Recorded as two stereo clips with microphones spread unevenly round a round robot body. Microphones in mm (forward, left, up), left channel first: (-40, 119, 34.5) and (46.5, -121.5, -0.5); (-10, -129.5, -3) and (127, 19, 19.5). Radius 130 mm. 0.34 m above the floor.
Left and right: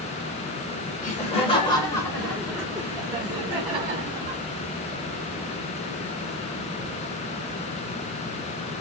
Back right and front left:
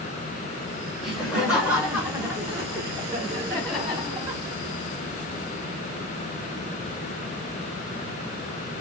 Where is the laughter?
150° left, 1.2 m; by 4.4 s 25° right, 1.7 m.